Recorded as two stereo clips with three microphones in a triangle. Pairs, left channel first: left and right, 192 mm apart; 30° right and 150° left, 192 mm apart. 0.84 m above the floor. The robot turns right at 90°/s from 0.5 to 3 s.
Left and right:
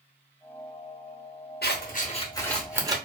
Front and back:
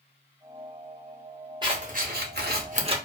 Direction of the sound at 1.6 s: 90° left.